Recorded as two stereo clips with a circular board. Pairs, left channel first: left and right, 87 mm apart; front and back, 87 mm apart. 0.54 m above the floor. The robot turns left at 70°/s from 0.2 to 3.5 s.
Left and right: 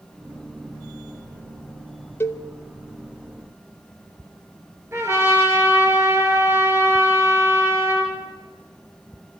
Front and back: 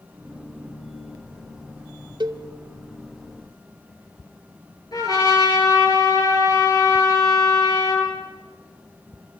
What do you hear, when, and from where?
2.2 s a cowbell: 150° left, 0.6 m; by 2.4 s 135° left, 0.6 m
4.9 s a trumpet: 40° right, 7.5 m